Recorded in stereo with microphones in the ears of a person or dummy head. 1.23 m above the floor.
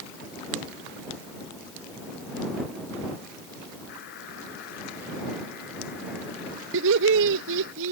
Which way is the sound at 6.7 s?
65° right (ahead or behind).